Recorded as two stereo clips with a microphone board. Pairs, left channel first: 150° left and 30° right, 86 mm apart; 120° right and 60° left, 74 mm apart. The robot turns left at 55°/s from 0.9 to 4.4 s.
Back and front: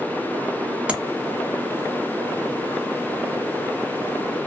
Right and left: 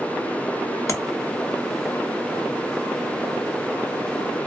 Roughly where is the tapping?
Right.